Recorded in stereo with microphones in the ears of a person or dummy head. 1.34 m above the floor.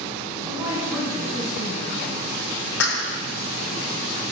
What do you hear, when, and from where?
0.5 s a woman speaking: 15° right (ahead or behind), 8.5 m
2.8 s a clap: 75° left (ahead or behind), 4.5 m